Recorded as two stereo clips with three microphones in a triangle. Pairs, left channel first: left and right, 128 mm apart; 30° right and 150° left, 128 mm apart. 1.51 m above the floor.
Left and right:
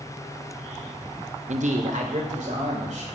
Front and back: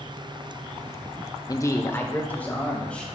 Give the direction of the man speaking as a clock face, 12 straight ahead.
3 o'clock.